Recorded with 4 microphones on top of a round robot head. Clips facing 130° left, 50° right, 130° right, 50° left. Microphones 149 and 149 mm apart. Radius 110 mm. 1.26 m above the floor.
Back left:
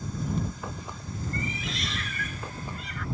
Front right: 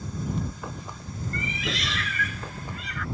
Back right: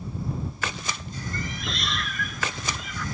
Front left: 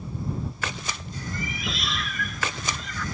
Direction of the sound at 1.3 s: 35° right.